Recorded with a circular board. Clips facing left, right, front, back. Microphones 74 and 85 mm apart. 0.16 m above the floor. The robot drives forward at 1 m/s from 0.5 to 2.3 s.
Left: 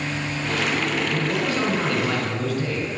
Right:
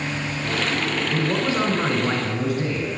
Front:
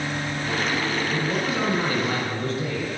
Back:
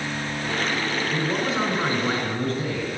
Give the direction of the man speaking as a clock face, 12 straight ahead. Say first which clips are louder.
Right 1 dB, even; 4 o'clock.